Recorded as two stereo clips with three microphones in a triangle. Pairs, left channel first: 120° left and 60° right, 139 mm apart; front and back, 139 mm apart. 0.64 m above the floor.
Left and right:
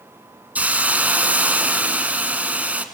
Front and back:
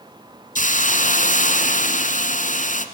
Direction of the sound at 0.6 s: 20° left.